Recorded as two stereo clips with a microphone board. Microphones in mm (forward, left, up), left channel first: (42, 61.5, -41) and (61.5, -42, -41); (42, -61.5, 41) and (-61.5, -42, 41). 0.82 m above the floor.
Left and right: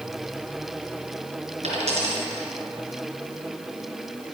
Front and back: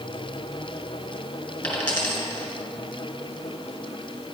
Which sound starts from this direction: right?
A dropped coin, at 1.6 s.